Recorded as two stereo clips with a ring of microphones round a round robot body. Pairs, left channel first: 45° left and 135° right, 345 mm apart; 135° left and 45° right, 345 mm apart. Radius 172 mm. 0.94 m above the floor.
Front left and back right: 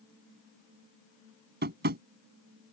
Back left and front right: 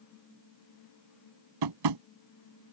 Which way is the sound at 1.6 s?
70° right.